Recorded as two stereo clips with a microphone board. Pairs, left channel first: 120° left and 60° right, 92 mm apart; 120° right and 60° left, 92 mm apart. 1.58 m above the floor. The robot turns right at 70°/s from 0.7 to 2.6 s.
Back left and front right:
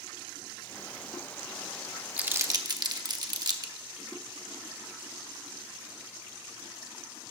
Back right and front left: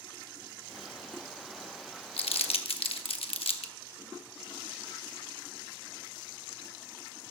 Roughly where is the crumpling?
Behind right.